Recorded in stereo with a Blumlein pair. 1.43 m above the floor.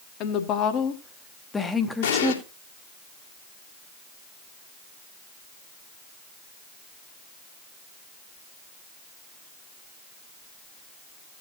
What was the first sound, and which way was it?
A woman speaking, 40° left.